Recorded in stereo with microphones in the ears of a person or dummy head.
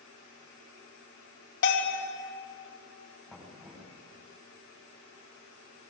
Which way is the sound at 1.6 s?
55° left (ahead or behind).